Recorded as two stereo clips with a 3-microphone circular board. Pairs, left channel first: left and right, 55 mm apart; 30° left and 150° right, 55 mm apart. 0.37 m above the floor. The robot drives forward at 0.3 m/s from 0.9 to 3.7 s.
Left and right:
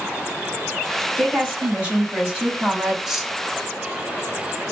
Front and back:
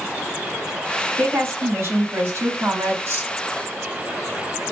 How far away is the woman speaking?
About 2.5 m.